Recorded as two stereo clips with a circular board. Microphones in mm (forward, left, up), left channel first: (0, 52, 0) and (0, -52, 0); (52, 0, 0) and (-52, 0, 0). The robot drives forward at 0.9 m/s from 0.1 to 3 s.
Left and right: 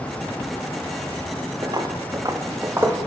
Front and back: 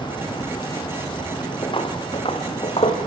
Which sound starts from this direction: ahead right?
Footsteps, at 1.6 s.